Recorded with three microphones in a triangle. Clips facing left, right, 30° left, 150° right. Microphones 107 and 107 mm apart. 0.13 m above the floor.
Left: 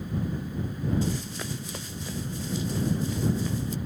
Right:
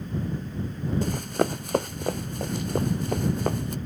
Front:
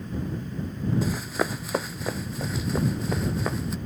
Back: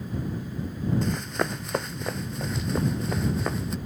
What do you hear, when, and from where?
1.0 s running footsteps: 55° right; by 3.8 s 60° right